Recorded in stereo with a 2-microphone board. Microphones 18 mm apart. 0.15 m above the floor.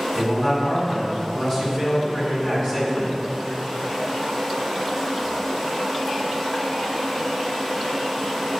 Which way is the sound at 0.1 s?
30° left (ahead or behind).